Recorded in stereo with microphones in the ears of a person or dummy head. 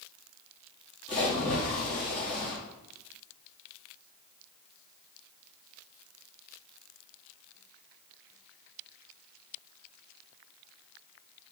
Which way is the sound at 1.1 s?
30° left (ahead or behind).